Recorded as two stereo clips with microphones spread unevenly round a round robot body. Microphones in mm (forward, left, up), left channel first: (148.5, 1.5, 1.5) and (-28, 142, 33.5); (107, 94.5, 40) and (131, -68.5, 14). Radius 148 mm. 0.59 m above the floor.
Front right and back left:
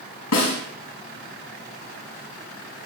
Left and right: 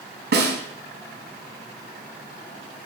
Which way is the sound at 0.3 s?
70° right.